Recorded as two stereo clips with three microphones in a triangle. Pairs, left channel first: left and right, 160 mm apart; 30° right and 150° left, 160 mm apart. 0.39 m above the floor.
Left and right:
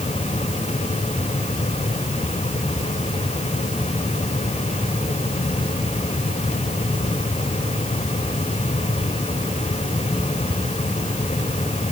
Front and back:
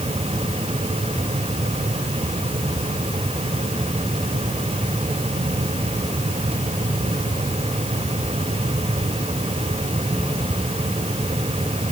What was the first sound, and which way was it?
Only background noise.